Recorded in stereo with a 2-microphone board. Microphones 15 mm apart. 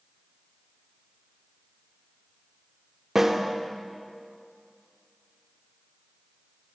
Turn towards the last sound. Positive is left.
turn(degrees=-30)  # may be behind; listen again after turning